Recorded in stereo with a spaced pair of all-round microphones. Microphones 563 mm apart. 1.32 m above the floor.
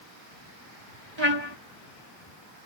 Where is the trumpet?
50° right (ahead or behind).